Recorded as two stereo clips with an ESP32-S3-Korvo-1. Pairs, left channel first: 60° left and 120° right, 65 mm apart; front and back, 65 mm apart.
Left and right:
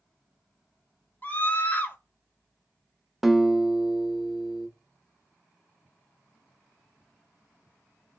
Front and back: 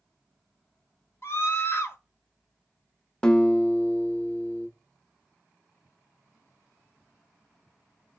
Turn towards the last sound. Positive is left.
turn(degrees=-45)